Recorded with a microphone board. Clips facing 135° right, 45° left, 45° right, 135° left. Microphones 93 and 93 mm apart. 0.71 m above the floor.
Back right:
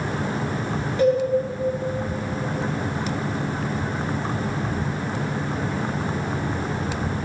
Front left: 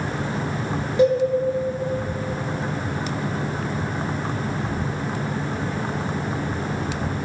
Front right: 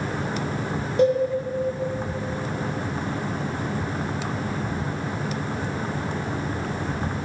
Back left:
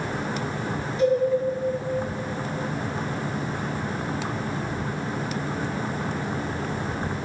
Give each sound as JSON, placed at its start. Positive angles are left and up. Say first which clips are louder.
{"t": 1.0, "sound": "a cowbell", "louder": "front left 1 dB, front right 2 dB", "azimuth_deg": -25, "distance_m": 1.9}